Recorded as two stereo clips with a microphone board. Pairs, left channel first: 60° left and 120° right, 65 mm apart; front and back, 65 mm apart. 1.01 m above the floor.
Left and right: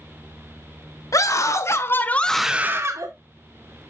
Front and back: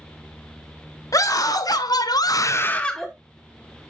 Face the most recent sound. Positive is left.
turn(degrees=-85)